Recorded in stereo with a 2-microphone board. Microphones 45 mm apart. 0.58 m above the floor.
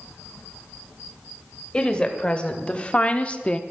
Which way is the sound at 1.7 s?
25° left (ahead or behind).